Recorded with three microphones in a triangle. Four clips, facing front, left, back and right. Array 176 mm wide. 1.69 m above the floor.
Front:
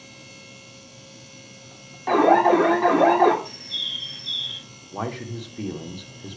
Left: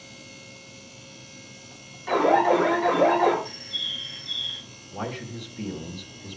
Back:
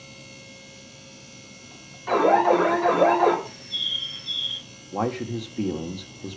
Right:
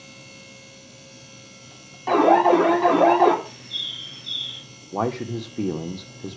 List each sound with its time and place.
2.1 s an alarm: 40° right, 3.5 m
3.5 s a bird: 5° left, 1.4 m
4.9 s a man speaking: 120° right, 1.5 m